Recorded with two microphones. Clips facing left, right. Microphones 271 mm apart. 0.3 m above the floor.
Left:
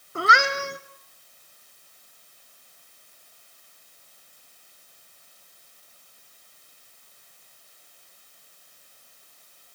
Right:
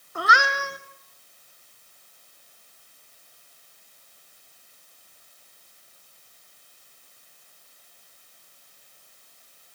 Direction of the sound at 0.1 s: 30° left (ahead or behind).